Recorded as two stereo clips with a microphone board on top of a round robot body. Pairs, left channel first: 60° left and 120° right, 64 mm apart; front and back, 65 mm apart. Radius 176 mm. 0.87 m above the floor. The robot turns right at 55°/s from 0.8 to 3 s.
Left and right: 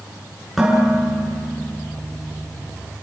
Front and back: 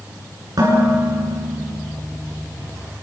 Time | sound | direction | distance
0.6 | dishes clattering | 150° left | 9 m